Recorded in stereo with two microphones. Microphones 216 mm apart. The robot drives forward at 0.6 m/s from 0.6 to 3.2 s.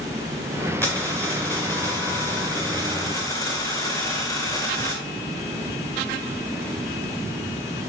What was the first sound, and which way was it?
A dropped coin, 10° left (ahead or behind).